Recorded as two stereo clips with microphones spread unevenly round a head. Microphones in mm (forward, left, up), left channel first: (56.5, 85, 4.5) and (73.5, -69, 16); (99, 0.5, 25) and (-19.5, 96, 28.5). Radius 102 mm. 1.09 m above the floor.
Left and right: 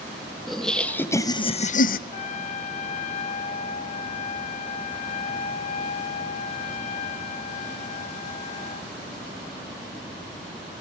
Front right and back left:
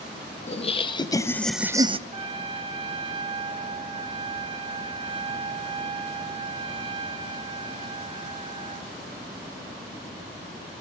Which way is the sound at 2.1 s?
120° left.